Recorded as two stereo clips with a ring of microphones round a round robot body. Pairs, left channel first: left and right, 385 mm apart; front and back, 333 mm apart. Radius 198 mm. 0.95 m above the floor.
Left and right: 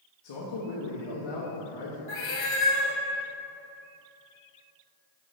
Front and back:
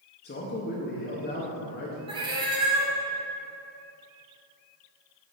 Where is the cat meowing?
115° left, 0.9 m.